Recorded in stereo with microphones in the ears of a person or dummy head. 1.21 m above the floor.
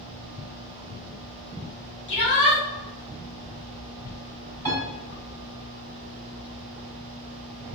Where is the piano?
15° left (ahead or behind), 2.0 m.